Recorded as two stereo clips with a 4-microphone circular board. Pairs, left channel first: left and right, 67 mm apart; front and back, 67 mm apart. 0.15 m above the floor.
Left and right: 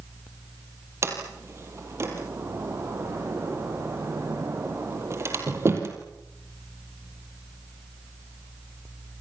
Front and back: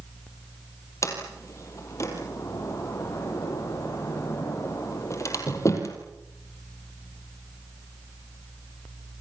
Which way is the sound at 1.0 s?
40° right.